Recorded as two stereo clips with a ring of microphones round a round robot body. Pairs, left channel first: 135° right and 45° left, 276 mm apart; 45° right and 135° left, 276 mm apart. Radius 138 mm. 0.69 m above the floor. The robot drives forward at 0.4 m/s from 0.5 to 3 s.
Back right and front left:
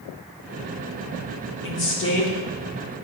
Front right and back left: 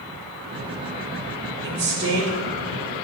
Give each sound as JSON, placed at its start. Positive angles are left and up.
{"t": 1.6, "sound": "a woman speaking", "azimuth_deg": -175, "distance_m": 1.3}